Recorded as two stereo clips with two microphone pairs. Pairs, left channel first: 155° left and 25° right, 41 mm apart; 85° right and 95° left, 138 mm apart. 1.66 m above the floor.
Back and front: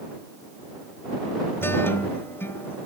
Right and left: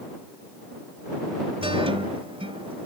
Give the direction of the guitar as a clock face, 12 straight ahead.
7 o'clock.